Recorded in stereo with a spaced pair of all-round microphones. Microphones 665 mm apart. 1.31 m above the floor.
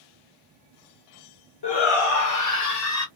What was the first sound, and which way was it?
A shout, 40° left (ahead or behind).